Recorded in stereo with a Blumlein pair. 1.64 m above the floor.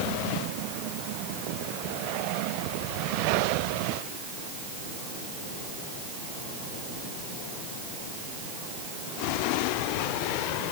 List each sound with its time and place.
Only background noise.